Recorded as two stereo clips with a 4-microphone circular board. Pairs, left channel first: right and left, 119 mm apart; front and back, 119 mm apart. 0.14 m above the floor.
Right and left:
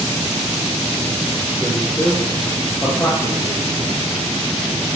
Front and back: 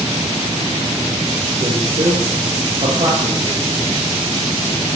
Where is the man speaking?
Straight behind, 3.5 m; by 4.0 s 140° right, 5.5 m.